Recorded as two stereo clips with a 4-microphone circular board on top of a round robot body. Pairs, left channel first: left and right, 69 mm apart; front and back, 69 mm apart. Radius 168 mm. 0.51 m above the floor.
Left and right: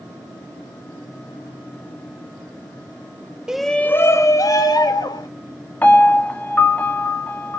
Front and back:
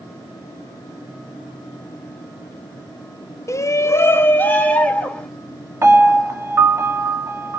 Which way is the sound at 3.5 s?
15° right.